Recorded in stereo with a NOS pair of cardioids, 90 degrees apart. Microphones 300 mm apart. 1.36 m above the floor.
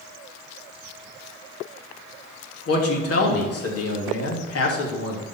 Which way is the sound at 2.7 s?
50° left.